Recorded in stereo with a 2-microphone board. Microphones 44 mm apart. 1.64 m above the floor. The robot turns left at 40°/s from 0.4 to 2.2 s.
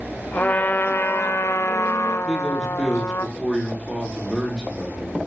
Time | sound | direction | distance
0.3 | a trumpet | 145° left | 0.7 m
2.2 | a man speaking | 5° right (ahead or behind) | 4 m